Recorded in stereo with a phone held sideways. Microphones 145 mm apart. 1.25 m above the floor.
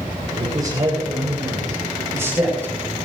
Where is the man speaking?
25° right (ahead or behind), 7 m; by 3.0 s 15° right (ahead or behind), 8.5 m.